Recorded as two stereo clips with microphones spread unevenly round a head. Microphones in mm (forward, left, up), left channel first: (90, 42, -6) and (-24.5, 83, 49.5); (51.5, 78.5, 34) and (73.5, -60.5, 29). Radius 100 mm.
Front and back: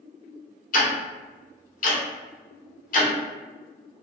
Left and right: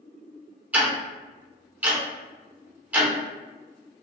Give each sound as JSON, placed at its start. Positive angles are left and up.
{"t": 0.7, "sound": "ticking", "azimuth_deg": -5, "distance_m": 1.1}